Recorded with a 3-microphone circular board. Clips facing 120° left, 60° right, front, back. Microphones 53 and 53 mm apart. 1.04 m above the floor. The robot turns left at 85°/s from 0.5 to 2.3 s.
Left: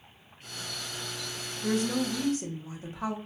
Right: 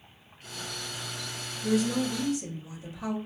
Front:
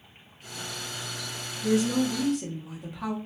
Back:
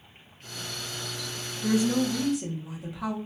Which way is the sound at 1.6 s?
150° left.